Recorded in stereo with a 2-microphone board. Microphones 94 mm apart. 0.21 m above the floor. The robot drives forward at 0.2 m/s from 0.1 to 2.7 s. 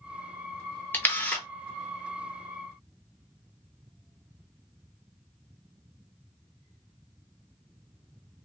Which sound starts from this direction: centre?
A camera shutter, at 0.9 s.